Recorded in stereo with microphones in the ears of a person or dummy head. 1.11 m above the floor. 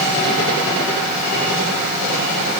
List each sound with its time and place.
Only background noise.